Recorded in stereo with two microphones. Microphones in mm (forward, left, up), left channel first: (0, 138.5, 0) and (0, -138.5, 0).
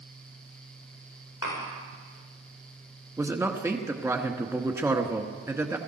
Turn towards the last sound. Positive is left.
turn(degrees=-10)  # may be behind; listen again after turning